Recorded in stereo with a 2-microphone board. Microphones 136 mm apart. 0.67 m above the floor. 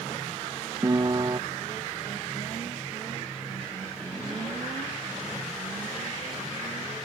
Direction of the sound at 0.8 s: 30° right (ahead or behind).